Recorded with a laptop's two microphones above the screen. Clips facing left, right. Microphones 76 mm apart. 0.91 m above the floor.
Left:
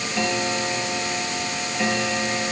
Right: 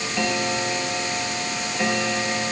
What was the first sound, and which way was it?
Only background noise.